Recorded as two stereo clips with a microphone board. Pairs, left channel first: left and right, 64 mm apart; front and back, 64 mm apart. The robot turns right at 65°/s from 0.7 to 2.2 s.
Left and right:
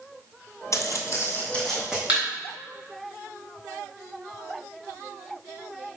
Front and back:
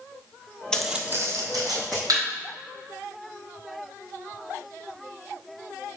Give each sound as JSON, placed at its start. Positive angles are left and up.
{"t": 0.7, "sound": "footsteps", "azimuth_deg": 75, "distance_m": 0.9}
{"t": 2.1, "sound": "a thud", "azimuth_deg": -160, "distance_m": 2.5}